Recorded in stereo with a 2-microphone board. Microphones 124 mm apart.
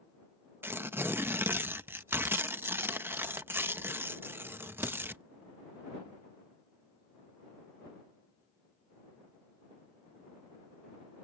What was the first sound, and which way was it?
Tearing paper, 15° right (ahead or behind).